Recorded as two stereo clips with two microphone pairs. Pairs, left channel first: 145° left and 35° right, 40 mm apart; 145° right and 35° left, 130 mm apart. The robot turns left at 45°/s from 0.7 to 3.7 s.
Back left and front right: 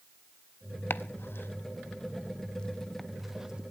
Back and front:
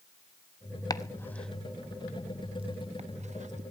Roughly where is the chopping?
Behind left.